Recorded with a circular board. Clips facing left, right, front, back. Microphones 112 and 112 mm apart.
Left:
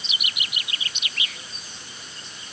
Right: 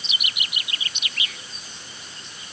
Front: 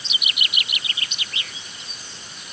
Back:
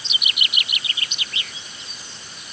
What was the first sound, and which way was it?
Only background noise.